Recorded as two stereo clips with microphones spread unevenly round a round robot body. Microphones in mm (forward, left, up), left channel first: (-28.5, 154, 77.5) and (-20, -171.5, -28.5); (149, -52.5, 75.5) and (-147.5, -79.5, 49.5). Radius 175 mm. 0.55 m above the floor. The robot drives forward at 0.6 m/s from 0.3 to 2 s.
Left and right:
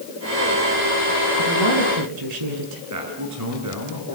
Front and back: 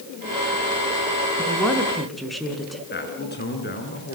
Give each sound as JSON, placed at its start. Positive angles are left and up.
{"t": 1.4, "sound": "a woman speaking", "azimuth_deg": -80, "distance_m": 5.5}
{"t": 2.9, "sound": "a man speaking", "azimuth_deg": -50, "distance_m": 7.5}